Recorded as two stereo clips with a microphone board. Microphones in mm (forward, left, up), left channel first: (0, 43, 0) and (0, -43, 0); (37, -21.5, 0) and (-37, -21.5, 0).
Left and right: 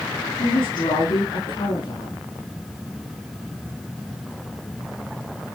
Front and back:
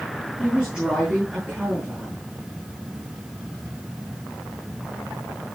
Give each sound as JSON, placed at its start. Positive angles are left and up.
{"t": 0.4, "sound": "a woman speaking", "azimuth_deg": 100, "distance_m": 7.0}